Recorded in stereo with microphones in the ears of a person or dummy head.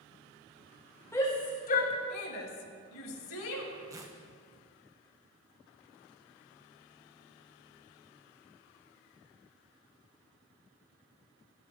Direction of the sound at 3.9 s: 15° right (ahead or behind).